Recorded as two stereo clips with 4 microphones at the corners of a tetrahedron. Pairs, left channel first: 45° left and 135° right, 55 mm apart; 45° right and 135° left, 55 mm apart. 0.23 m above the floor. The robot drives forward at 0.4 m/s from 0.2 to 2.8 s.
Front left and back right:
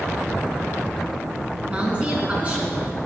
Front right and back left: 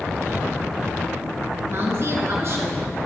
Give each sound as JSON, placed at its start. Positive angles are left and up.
{"t": 1.7, "sound": "a woman speaking", "azimuth_deg": 160, "distance_m": 2.0}